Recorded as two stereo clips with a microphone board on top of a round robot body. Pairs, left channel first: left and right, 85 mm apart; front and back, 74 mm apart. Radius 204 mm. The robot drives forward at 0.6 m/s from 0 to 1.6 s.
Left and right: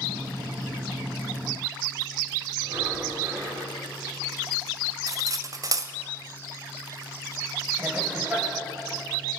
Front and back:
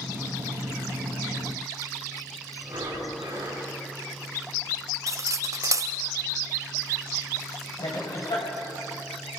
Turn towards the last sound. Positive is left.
turn(degrees=-15)